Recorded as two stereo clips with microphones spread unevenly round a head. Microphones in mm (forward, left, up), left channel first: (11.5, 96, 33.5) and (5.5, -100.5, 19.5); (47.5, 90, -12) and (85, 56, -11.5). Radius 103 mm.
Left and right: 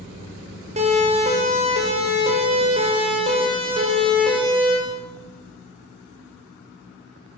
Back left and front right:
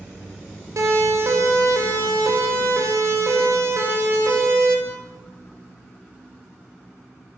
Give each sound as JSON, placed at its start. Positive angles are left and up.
{"t": 0.8, "sound": "a siren", "azimuth_deg": -35, "distance_m": 9.5}